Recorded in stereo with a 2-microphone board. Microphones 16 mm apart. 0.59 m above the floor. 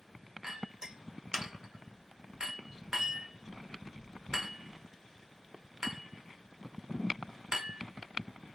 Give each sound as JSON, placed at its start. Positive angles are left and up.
{"t": 0.4, "sound": "a clink", "side_deg": -50, "distance_m": 1.2}